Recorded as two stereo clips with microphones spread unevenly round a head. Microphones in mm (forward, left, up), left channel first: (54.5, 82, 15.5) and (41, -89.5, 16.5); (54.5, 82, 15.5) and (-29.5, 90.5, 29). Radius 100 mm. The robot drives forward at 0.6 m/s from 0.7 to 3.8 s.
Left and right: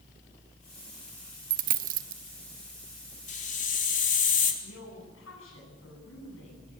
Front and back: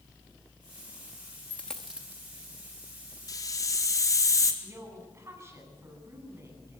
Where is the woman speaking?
115° left, 10 m.